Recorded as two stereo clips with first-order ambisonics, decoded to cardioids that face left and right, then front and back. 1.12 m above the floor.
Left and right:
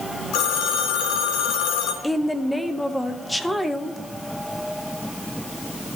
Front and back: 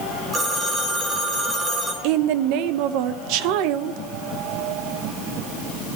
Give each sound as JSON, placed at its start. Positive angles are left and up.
{"t": 0.3, "sound": "a phone ringing", "azimuth_deg": 105, "distance_m": 2.0}
{"t": 2.0, "sound": "a woman speaking", "azimuth_deg": 175, "distance_m": 0.8}